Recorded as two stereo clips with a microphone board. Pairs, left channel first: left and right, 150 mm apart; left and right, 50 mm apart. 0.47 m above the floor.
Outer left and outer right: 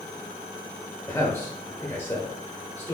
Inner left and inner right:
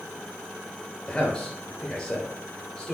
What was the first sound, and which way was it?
A man speaking, 15° left (ahead or behind).